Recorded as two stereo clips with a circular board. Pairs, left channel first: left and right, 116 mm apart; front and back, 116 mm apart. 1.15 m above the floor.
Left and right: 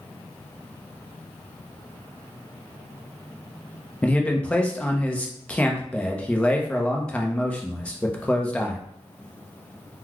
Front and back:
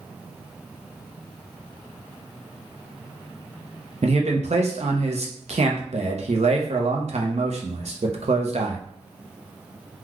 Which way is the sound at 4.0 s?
170° left.